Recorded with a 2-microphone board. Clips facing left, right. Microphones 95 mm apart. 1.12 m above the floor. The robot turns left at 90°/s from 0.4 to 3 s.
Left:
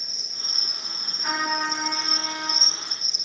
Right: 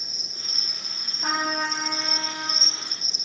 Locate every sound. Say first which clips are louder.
0.0 s an insect: even; 165° right, 0.8 m; by 3.2 s 35° right, 0.8 m
1.2 s a trumpet: even; 105° right, 2 m; by 2.6 s 130° left, 2 m